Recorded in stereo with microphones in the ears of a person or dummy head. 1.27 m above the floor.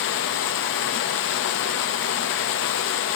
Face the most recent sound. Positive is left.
turn(degrees=60)  # may be behind; listen again after turning